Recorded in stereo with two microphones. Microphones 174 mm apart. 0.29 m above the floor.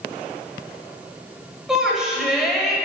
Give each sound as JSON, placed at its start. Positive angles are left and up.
{"t": 1.7, "sound": "a shout", "side_deg": -5, "distance_m": 1.3}